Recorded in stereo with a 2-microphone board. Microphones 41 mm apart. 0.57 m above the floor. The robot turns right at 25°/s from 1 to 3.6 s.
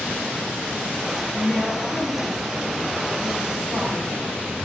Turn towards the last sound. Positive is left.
turn(degrees=-125)